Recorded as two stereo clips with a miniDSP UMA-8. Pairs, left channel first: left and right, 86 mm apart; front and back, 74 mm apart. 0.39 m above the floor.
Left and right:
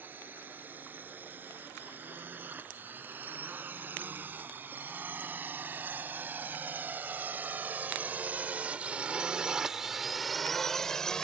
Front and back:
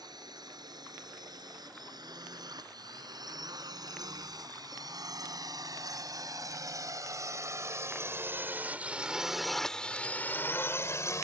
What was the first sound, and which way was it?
A drone, 160° right.